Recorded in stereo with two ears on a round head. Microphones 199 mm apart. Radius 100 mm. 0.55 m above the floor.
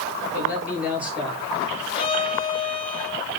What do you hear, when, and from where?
0.3 s a man speaking: 10° right (ahead or behind), 9.5 m; by 1.4 s 5° right (ahead or behind), 10 m
1.9 s a violin: 25° left (ahead or behind), 4 m